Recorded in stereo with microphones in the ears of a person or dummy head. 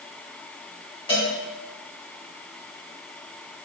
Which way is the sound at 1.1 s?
25° left (ahead or behind).